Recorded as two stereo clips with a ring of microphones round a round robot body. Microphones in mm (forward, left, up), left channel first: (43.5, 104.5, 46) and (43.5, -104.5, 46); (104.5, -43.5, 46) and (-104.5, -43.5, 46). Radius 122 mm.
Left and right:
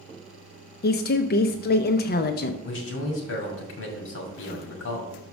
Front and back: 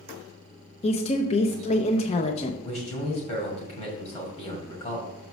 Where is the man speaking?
65° left, 2 m.